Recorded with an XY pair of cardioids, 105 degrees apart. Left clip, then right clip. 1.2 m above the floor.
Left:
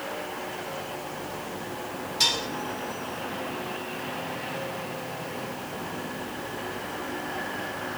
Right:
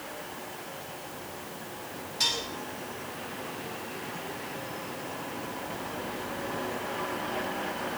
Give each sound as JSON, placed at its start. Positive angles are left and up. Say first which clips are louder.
{"t": 2.2, "sound": "dishes clattering", "louder": "left 4 dB", "azimuth_deg": 45, "distance_m": 5.5}